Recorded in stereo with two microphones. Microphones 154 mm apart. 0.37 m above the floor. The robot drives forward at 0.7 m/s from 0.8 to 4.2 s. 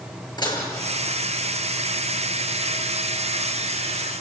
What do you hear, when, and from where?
0.4 s dishes clattering: 30° left (ahead or behind), 4.5 m